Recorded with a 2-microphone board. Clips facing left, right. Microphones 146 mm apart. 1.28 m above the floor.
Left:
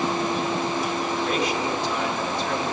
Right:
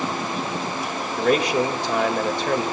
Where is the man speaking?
75° right (ahead or behind), 2 m.